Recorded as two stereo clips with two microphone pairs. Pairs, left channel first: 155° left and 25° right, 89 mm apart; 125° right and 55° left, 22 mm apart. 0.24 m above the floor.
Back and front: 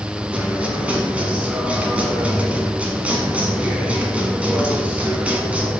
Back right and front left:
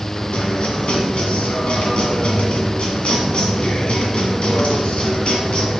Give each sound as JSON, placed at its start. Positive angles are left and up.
{"t": 0.3, "sound": "a guitar", "azimuth_deg": -100, "distance_m": 1.5}